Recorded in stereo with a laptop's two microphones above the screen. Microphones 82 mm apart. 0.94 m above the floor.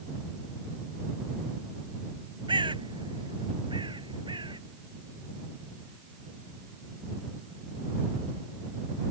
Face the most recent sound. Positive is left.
turn(degrees=-80)